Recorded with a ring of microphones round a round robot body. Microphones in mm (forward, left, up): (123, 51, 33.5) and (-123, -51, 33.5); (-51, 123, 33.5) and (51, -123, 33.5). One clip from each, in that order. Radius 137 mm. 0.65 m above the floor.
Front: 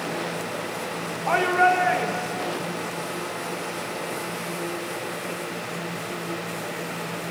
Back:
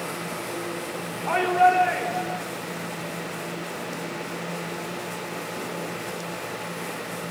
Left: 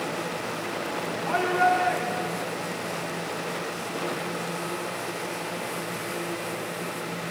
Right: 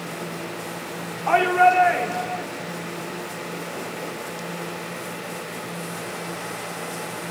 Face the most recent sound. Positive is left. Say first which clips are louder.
# even, right 6 dB
turn(degrees=-45)